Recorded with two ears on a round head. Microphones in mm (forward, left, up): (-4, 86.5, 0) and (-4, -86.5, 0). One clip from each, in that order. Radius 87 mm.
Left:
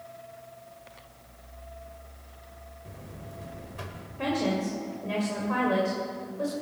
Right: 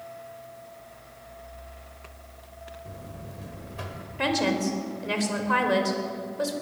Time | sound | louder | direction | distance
2.9 | a buzzer | right 3 dB | centre (ahead or behind) | 1.5 m
4.2 | a woman speaking | right 3 dB | 55° right (ahead or behind) | 3 m